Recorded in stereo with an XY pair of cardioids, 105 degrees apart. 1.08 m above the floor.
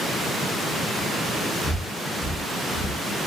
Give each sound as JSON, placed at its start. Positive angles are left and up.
{"t": 1.6, "sound": "breathing", "azimuth_deg": 60, "distance_m": 1.0}